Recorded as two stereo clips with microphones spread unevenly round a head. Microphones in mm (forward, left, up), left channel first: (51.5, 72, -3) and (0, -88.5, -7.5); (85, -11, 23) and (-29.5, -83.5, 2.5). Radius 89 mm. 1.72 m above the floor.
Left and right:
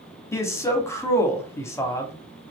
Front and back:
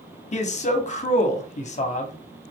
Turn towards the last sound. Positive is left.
turn(degrees=-5)